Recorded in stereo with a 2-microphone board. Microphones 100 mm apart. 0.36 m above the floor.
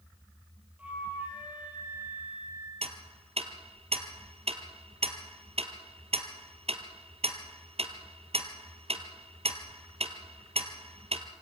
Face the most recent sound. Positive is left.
turn(degrees=-80)